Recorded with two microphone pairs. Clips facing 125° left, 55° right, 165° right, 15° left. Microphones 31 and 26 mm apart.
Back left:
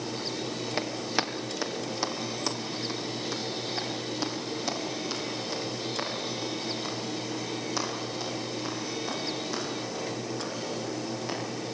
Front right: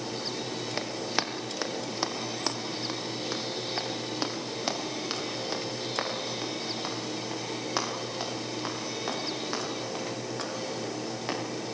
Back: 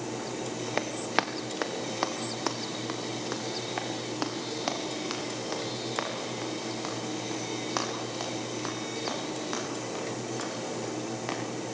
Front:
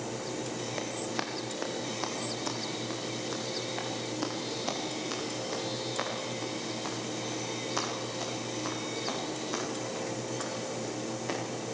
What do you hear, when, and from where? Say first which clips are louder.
0.8 s running footsteps: back left 1 dB, back 8 dB; 150° right, 2.5 m; by 11.4 s 110° right, 14 m